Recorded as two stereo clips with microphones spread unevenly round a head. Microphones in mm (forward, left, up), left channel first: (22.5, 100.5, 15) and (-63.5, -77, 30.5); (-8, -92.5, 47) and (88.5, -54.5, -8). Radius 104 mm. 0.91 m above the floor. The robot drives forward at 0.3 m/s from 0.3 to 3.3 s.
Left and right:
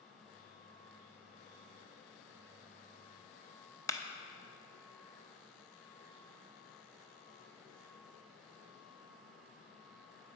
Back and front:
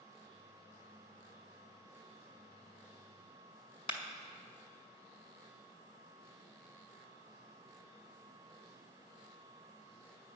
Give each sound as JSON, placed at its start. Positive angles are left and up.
{"t": 3.9, "sound": "a clap", "azimuth_deg": 130, "distance_m": 0.9}